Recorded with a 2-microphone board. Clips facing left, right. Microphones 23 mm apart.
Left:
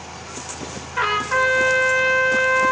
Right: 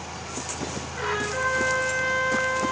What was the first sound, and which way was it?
A trumpet, 80° left.